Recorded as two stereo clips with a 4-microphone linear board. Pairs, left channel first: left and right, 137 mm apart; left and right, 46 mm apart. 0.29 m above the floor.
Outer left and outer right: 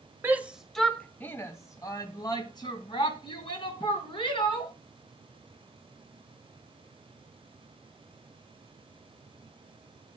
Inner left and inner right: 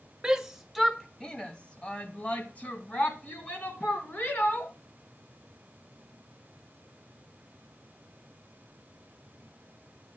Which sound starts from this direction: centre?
A shout, at 0.2 s.